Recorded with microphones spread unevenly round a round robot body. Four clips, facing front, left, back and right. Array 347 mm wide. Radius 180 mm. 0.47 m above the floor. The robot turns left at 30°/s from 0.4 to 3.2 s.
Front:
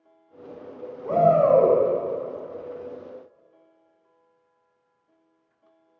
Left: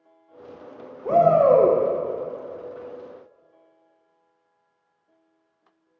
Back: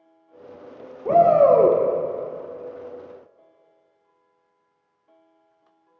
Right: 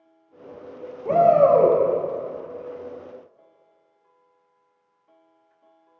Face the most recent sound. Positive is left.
turn(degrees=95)